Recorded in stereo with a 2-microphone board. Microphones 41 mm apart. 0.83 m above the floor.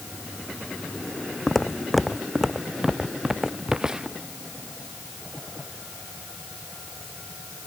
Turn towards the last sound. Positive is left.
turn(degrees=-20)  # may be behind; listen again after turning